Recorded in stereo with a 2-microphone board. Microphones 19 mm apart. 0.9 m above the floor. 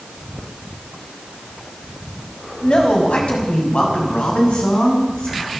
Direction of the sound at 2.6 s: 75° left (ahead or behind).